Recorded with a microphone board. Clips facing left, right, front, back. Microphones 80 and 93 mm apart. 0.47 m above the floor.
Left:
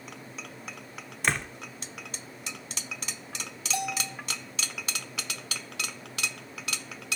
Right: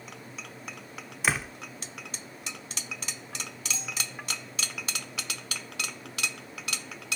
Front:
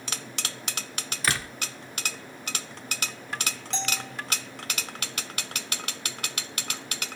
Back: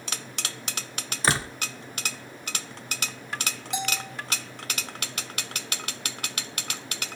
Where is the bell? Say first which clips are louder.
Left 10 dB, back 3 dB; 100° left.